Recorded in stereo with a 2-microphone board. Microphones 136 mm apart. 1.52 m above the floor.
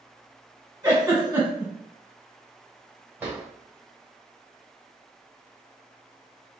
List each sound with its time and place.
0.8 s a giggle: 20° right (ahead or behind), 1.5 m
3.2 s a drawer: 15° right (ahead or behind), 1.4 m